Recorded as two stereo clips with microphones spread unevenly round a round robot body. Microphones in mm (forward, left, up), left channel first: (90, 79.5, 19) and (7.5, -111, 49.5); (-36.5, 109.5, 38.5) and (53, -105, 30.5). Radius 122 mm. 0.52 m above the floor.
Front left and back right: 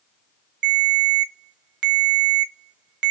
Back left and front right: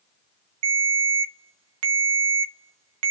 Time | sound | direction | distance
0.6 | a ringtone | 75° right | 0.6 m